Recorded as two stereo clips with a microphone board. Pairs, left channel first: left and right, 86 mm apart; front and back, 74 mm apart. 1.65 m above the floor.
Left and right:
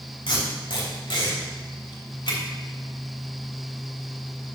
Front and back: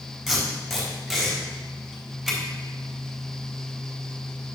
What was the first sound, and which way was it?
Tape being pulled, 90° left.